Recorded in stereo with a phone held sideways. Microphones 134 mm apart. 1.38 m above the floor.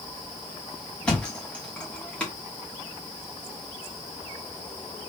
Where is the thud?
10° left (ahead or behind), 1.2 m.